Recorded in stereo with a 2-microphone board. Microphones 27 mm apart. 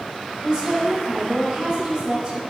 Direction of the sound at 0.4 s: 30° right (ahead or behind).